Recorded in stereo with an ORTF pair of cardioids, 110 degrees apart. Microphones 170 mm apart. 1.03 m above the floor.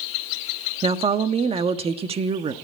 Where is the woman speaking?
35° right, 1.4 m.